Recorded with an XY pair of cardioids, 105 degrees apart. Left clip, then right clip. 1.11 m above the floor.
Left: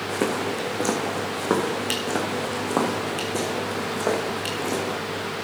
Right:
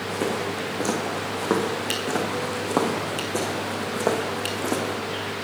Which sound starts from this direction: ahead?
Footsteps, at 0.1 s.